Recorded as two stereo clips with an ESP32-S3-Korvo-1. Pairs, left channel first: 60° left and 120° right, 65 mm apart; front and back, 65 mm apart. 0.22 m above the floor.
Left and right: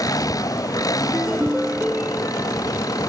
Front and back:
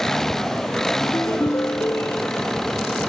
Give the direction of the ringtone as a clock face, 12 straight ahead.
1 o'clock.